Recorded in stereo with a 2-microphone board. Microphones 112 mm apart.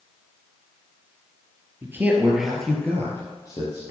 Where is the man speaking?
25° right (ahead or behind), 2.5 m; by 3.8 s 40° left (ahead or behind), 3.5 m.